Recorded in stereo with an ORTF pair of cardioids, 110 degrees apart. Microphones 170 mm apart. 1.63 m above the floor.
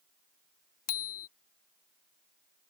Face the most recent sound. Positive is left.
turn(degrees=65)